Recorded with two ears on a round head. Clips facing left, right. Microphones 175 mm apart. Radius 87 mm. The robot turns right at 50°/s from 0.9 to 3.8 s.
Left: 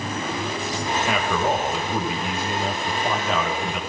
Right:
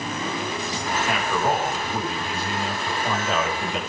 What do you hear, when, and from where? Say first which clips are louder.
1.1 s a man speaking: left 1 dB; 65° left, 7 m; by 3.8 s 155° right, 7 m